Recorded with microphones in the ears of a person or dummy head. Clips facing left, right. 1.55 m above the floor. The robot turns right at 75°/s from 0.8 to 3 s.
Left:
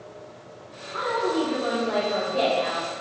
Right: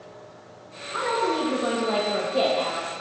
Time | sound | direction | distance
0.9 | a woman speaking | 125° right | 1.0 m